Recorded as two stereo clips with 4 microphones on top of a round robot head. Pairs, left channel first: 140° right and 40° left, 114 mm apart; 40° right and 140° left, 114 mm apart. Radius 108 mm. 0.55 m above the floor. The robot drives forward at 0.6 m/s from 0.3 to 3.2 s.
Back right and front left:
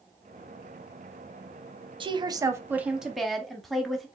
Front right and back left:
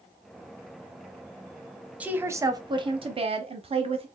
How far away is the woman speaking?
About 0.8 m.